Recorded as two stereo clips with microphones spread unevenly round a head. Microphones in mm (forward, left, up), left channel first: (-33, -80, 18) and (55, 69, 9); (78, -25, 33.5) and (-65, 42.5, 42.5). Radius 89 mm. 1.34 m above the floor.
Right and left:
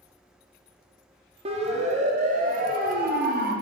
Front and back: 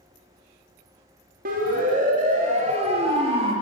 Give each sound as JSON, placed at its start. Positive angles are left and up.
{"t": 1.4, "sound": "a siren", "azimuth_deg": 120, "distance_m": 3.5}